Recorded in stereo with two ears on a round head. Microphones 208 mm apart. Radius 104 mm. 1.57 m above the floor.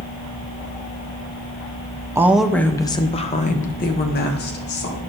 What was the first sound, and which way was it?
A woman speaking, 10° right (ahead or behind).